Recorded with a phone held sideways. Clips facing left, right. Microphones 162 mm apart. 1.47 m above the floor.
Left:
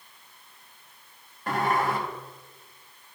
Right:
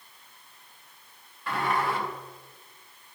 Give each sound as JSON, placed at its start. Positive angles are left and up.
{"t": 1.5, "sound": "a sliding door", "side_deg": 45, "distance_m": 1.5}